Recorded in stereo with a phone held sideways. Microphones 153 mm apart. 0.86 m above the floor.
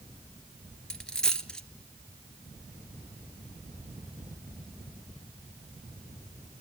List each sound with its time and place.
0.9 s a dropped coin: 5° left (ahead or behind), 1.7 m